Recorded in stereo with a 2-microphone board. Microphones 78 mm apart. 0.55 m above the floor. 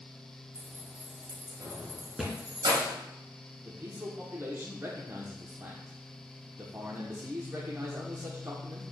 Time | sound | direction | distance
0.6 | keys jangling | 15° right (ahead or behind) | 2 m
2.2 | a thud | centre (ahead or behind) | 2.5 m
3.6 | a man speaking | 35° right (ahead or behind) | 1.1 m